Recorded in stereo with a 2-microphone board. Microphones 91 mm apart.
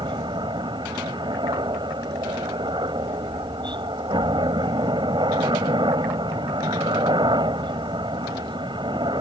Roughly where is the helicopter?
Right.